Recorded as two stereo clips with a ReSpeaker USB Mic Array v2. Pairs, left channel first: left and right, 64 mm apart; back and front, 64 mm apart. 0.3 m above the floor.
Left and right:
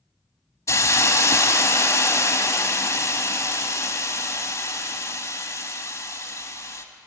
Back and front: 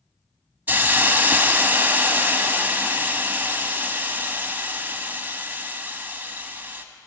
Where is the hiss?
60° left, 1.1 m.